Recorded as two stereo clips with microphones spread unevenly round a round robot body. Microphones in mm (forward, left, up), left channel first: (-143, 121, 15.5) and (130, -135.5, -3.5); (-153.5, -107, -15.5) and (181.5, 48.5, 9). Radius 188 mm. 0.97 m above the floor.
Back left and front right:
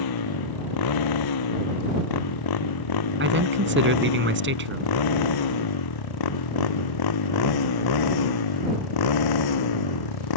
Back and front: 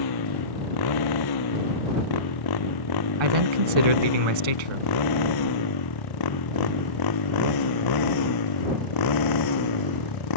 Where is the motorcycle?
170° left; by 10.4 s 165° left.